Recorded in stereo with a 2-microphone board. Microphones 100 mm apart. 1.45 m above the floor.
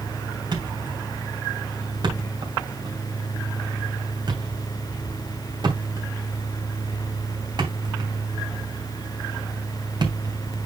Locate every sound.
0.5 s a thud: 45° right (ahead or behind), 2.5 m